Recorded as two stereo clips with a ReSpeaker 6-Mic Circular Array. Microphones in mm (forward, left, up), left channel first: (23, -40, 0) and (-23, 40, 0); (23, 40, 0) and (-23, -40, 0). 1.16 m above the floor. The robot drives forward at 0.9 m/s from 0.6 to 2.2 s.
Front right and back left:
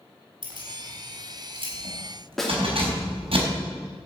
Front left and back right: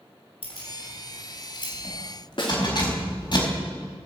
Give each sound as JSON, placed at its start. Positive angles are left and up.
{"t": 0.4, "sound": "keys jangling", "azimuth_deg": 80, "distance_m": 4.5}
{"t": 2.4, "sound": "a snare drum", "azimuth_deg": 25, "distance_m": 2.5}